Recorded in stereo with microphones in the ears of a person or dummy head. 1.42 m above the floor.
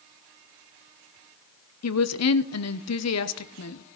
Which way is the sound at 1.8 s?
75° left (ahead or behind).